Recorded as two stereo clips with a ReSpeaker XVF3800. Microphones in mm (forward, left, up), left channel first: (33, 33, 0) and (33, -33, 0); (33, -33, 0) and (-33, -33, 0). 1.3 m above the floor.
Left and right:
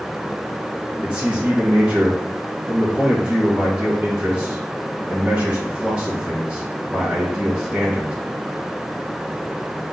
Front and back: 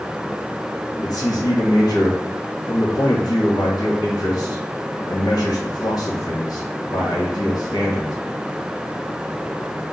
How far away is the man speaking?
About 1.3 m.